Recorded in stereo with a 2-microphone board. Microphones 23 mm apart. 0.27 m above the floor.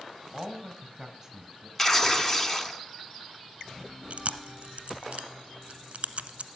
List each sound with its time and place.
0.3 s a man speaking: 20° right (ahead or behind), 1.6 m
1.8 s tearing paper: 15° left (ahead or behind), 0.7 m
4.1 s chewing: 60° right (ahead or behind), 0.7 m